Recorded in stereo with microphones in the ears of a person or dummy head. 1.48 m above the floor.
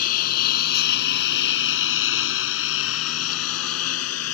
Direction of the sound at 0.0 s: 45° left (ahead or behind).